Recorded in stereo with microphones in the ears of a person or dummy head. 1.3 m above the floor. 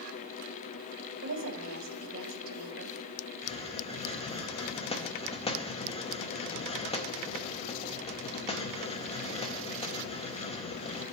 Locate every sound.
1.2 s a woman speaking: 80° right, 1.6 m
3.4 s a hiss: 20° left (ahead or behind), 0.7 m